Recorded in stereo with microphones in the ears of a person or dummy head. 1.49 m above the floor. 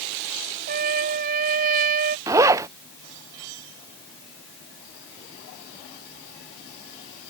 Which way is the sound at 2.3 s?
15° right (ahead or behind).